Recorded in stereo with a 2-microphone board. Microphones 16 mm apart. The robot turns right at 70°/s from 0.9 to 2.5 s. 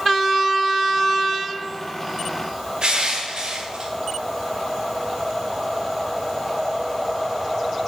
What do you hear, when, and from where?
2.8 s crushing: 50° right (ahead or behind), 1.0 m